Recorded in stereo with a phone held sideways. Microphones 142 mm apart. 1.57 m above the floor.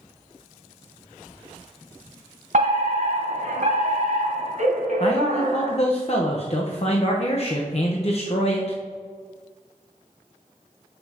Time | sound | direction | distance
2.5 | a fire alarm | 60° right (ahead or behind) | 1.9 m
5.0 | a man speaking | 45° left (ahead or behind) | 0.8 m